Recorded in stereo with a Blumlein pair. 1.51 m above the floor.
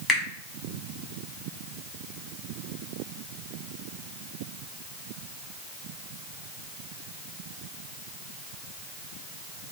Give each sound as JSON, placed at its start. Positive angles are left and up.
{"t": 0.1, "sound": "a finger snap", "azimuth_deg": 20, "distance_m": 1.2}